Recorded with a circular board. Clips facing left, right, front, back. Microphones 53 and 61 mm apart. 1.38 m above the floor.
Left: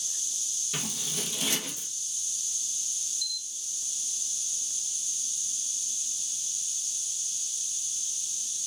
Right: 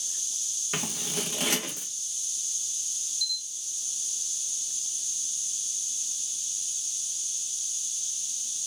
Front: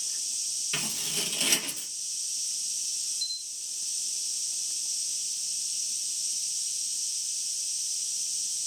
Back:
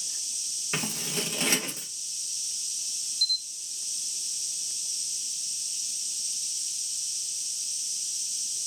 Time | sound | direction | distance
0.7 | scissors | 125° right | 1.4 m
3.2 | a camera shutter | 75° right | 2.5 m